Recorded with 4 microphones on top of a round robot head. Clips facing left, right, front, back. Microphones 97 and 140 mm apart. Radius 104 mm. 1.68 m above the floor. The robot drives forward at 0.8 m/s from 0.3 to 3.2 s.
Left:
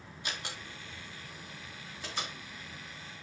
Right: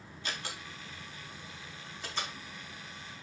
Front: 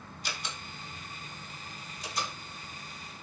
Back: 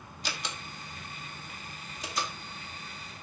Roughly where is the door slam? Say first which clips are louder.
Right 1 dB, back 3 dB; behind.